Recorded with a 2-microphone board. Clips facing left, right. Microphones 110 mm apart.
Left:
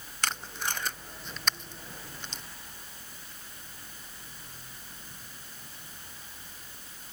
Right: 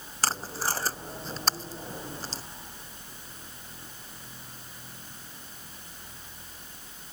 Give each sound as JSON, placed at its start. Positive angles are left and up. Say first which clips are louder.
{"t": 0.2, "sound": "tape being pulled", "louder": "right 4 dB", "side_deg": -35}